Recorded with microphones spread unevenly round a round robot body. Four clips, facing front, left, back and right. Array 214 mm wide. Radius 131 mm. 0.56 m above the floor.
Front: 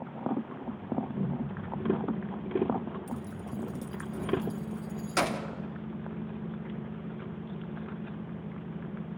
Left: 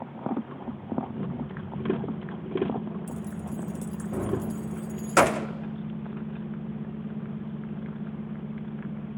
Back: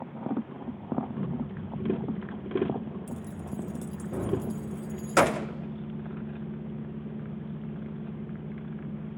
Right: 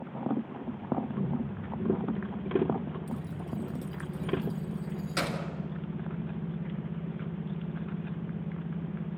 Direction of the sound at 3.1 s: 115° left.